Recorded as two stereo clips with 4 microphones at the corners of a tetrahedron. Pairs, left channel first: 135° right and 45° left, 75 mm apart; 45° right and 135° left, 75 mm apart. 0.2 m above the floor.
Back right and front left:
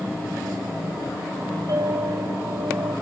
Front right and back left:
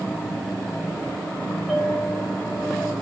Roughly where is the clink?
Ahead left.